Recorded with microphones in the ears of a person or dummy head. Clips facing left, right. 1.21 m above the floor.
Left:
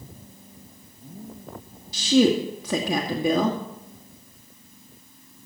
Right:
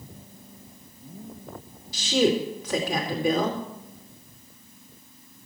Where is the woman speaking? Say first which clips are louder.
Left 4 dB; 80° left, 2.5 m.